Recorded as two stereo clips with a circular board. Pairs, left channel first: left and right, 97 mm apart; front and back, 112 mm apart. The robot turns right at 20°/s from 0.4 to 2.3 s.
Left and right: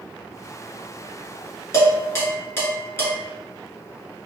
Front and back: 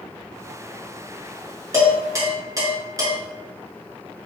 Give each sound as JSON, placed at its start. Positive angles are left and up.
{"t": 1.7, "sound": "dishes clattering", "azimuth_deg": 130, "distance_m": 1.2}